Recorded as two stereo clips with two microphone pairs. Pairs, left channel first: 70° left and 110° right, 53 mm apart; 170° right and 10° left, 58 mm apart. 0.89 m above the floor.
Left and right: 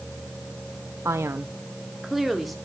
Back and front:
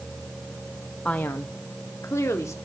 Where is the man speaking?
105° right, 0.6 m; by 2.6 s 160° left, 2 m.